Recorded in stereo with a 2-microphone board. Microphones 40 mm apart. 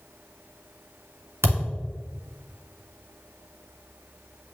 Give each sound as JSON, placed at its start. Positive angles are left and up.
{"t": 1.4, "sound": "a thud", "side_deg": -80, "distance_m": 1.8}